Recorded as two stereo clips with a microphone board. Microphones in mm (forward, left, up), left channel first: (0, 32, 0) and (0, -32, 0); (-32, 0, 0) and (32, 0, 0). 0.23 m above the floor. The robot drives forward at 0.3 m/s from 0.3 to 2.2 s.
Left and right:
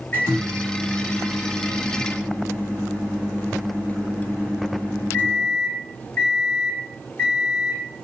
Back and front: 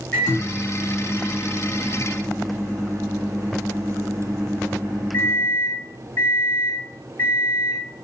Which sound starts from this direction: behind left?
A microwave, at 0.1 s.